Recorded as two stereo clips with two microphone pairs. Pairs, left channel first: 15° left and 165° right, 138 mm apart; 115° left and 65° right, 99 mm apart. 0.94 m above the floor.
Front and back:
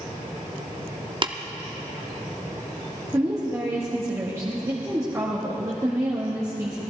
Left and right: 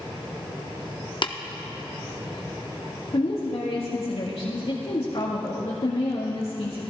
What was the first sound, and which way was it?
Tapping, 145° left.